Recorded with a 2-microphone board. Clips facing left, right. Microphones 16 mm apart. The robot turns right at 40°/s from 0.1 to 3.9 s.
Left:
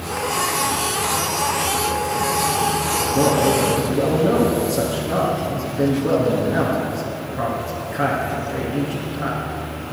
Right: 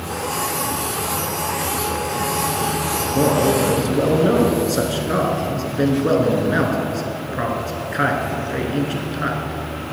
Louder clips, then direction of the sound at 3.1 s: Right 1 dB; 165° right.